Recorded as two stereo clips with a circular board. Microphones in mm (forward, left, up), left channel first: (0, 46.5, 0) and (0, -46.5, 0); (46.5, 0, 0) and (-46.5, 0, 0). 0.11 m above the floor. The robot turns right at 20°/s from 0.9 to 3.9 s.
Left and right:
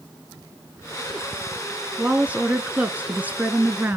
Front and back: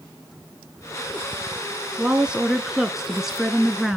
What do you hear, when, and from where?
2.0 s a woman speaking: 125° right, 1.1 m; by 4.0 s 85° right, 1.1 m